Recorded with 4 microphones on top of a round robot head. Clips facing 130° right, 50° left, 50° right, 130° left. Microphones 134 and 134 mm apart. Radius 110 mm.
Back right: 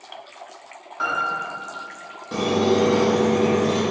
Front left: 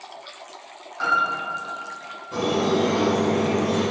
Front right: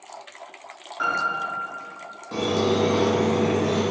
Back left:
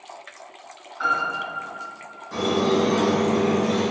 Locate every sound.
1.0 s a piano: 75° right, 0.6 m
2.3 s a squeak: 120° right, 0.6 m